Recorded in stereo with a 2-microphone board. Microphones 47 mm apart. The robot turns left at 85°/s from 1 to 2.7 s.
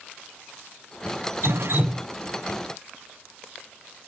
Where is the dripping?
90° right, 1.0 m; by 2.1 s 145° right, 1.0 m.